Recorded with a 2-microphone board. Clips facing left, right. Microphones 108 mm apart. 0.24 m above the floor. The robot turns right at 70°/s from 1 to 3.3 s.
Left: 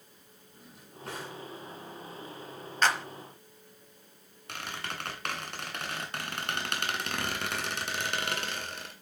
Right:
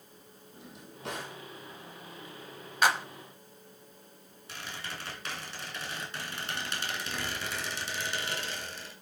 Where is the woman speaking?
I don't hear a woman speaking.